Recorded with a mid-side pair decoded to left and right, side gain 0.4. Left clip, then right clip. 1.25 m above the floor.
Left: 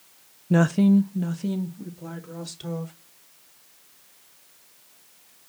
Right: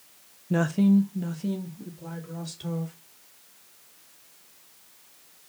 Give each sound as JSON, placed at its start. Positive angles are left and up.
{"t": 0.5, "sound": "a woman speaking", "azimuth_deg": 35, "distance_m": 0.5}